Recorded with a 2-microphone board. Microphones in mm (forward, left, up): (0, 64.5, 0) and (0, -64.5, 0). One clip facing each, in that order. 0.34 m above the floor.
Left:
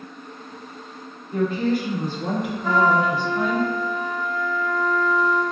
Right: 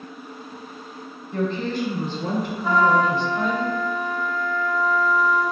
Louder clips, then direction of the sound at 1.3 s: Left 3 dB; 10° left (ahead or behind).